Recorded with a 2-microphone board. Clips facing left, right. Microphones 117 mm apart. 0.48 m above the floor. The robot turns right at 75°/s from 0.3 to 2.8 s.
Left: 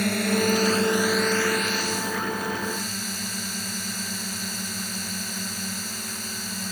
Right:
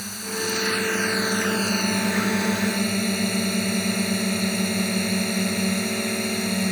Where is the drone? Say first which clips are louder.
Left 7 dB; 65° left (ahead or behind); by 6.7 s 60° right (ahead or behind).